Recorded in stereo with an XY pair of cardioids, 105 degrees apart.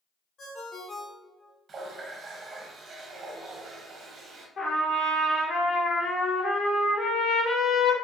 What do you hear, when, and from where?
0.4 s a ringtone: 50° left, 1.0 m
1.7 s a running tap: 55° right, 0.8 m
4.6 s a trumpet: 55° left, 1.2 m